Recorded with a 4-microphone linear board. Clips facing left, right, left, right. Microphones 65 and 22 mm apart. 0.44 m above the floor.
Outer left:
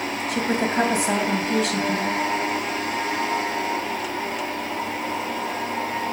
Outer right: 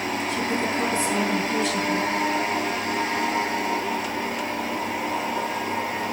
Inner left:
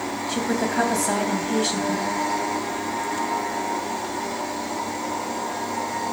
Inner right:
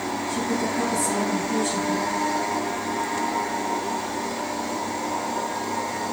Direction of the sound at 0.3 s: 70° left (ahead or behind).